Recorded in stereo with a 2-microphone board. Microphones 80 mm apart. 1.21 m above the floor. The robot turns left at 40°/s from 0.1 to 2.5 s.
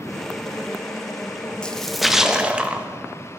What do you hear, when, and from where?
1.6 s a splash: 15° left, 0.5 m; by 2.9 s 20° right, 0.5 m